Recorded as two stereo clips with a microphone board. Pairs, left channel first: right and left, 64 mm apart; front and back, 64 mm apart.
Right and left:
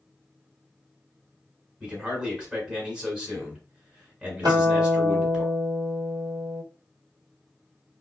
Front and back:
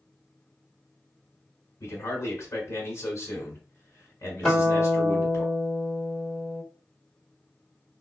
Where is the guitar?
85° left, 1.1 m.